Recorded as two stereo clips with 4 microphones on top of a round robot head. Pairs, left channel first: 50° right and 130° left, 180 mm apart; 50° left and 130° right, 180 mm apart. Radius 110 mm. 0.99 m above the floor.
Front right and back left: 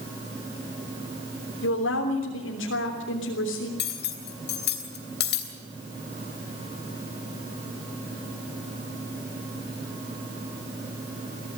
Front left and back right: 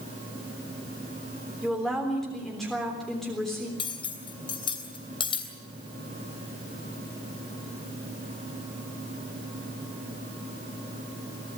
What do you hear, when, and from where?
1.6 s a woman speaking: 40° right, 3.5 m
3.8 s cutlery clinking: 15° right, 3 m